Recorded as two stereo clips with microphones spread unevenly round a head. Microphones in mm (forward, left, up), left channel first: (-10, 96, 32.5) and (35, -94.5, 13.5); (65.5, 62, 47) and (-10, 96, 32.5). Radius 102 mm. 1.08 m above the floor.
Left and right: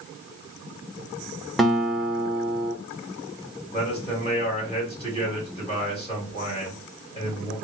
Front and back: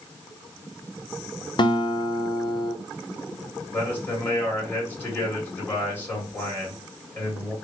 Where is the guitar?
10° left, 0.6 m.